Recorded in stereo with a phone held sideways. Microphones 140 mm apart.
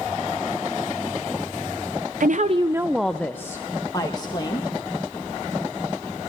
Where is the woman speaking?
70° right (ahead or behind), 0.6 m; by 4.8 s 30° left (ahead or behind), 2 m.